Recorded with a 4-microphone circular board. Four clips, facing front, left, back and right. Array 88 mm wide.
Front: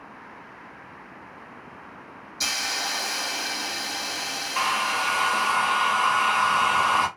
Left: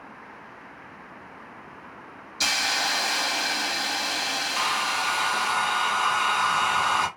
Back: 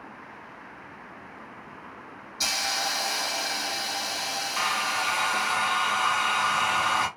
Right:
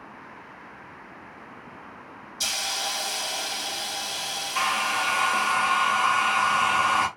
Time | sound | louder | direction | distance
2.4 | a hiss | left 6 dB, even | 85° left | 0.7 m
4.5 | a hair dryer | right 2 dB, front 3 dB | 45° right | 1.4 m